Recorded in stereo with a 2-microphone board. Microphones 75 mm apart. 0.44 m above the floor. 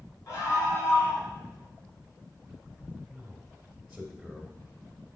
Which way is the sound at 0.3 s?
50° left (ahead or behind).